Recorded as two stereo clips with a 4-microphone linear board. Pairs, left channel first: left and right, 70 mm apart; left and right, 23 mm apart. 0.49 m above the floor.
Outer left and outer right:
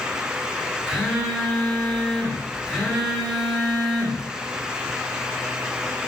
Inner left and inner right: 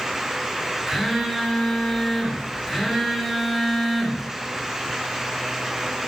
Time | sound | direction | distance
0.9 | a phone buzzing | 15° left (ahead or behind) | 1.2 m